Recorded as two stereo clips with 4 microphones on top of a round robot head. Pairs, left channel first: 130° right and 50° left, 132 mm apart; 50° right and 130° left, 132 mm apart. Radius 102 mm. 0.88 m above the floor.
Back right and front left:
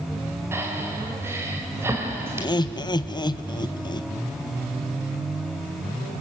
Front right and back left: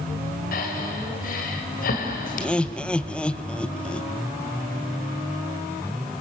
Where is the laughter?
125° right, 0.8 m.